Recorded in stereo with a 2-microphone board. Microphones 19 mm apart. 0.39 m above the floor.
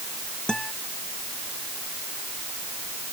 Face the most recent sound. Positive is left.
turn(degrees=45)  # may be behind; listen again after turning